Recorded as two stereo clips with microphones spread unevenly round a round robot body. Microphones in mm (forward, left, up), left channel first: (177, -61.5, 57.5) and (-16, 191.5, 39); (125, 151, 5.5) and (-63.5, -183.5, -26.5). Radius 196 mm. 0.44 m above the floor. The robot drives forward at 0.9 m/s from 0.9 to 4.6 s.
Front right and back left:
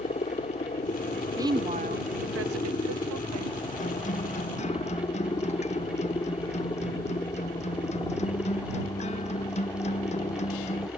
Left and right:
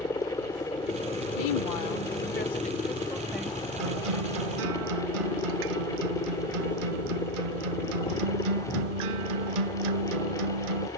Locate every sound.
0.0 s a helicopter: 10° right; by 11.0 s 15° left
1.4 s a woman speaking: 55° left; by 3.7 s 155° left
3.8 s a guitar: 125° right